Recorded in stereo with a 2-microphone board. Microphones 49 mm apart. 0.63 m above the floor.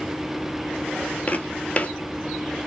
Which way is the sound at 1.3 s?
35° left (ahead or behind).